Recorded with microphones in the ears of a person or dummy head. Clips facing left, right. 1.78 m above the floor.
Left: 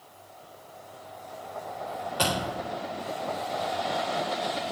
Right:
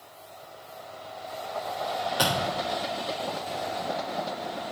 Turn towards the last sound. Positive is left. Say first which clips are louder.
# left 1 dB
turn(degrees=-5)  # may be behind; listen again after turning